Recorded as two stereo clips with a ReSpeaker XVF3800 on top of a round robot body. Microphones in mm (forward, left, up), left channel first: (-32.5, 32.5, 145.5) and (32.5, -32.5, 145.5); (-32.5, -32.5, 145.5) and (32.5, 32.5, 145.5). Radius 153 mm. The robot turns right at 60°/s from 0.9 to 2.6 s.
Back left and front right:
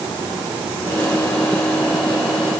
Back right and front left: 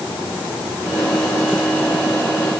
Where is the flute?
I don't hear a flute.